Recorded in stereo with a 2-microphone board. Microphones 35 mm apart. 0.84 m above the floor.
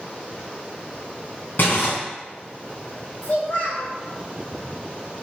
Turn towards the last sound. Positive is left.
turn(degrees=70)  # may be behind; listen again after turning